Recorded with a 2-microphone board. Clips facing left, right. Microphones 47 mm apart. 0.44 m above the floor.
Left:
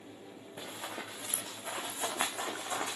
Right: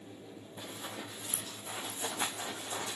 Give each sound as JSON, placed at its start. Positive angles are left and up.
{"t": 0.6, "sound": "running footsteps", "side_deg": 60, "distance_m": 2.5}